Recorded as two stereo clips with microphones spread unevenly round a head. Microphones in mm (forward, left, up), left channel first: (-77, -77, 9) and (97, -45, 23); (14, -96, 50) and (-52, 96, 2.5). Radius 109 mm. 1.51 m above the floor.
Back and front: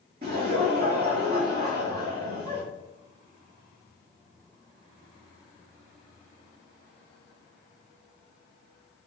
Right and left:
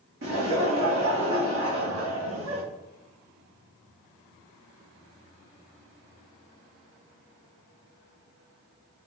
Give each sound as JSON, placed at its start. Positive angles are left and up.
{"t": 0.2, "sound": "laughter", "azimuth_deg": 75, "distance_m": 0.9}